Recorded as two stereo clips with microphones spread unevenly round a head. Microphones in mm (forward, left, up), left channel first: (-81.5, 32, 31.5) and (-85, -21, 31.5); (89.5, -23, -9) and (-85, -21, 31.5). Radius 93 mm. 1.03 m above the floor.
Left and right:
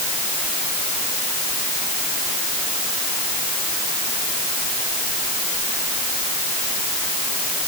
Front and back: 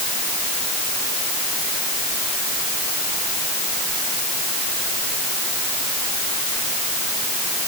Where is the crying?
I don't hear crying.